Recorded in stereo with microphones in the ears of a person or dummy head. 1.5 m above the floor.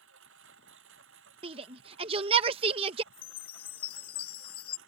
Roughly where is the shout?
Right.